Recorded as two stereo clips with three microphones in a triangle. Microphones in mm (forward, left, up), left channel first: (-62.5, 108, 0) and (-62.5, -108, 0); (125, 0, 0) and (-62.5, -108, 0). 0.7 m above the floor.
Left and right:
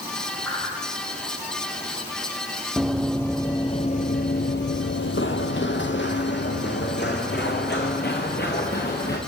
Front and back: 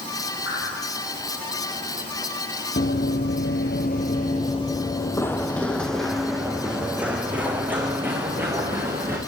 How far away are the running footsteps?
About 1.4 m.